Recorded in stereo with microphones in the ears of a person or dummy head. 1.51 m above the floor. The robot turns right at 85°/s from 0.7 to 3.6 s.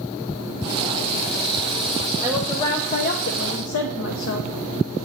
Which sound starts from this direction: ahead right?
A woman speaking, at 2.2 s.